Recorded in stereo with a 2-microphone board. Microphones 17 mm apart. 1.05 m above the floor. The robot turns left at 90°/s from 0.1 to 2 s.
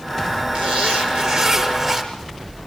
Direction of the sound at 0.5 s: 60° right.